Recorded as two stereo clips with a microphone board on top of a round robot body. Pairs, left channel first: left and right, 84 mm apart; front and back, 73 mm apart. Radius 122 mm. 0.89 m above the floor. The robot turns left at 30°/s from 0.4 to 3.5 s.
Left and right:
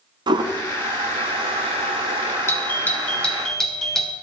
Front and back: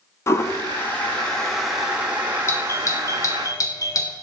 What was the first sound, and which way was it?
A toilet flushing, 55° right.